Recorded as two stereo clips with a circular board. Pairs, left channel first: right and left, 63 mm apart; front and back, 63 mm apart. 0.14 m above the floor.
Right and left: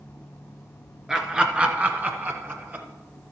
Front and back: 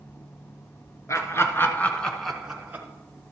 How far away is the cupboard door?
I don't hear a cupboard door.